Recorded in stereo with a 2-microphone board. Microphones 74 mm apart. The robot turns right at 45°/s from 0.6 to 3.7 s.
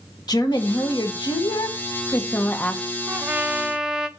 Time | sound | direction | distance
0.3 | a woman speaking | 65° left | 2.0 m
3.1 | a trumpet | 35° right (ahead or behind) | 0.8 m